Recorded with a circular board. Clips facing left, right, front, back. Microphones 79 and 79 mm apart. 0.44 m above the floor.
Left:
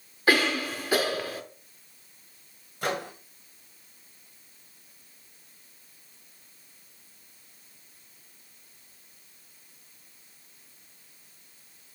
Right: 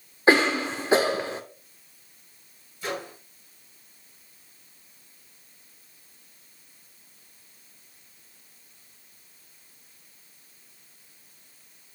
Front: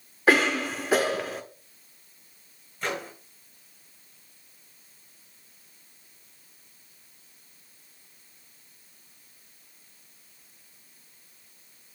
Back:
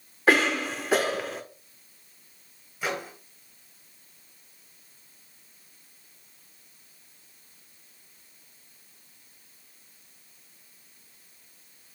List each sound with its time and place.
0.3 s a cough: 85° right, 0.8 m
2.8 s a microwave: 100° left, 1.8 m